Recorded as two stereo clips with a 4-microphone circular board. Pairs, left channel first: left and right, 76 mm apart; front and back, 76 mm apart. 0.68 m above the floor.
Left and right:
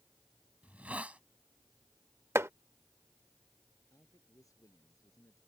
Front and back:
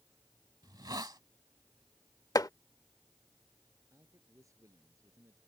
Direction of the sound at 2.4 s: 35° right.